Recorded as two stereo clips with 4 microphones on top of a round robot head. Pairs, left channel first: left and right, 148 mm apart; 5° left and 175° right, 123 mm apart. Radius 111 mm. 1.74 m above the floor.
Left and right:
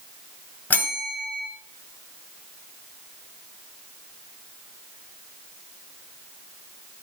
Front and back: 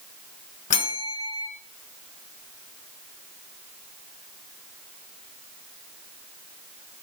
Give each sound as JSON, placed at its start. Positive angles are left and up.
{"t": 0.7, "sound": "a bell", "azimuth_deg": 15, "distance_m": 1.3}